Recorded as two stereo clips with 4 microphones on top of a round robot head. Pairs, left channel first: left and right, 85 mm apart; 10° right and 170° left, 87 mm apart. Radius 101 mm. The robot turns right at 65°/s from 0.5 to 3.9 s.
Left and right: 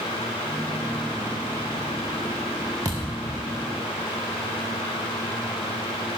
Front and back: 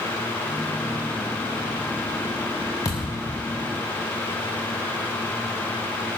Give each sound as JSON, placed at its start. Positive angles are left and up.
{"t": 2.9, "sound": "a thud", "azimuth_deg": -50, "distance_m": 1.0}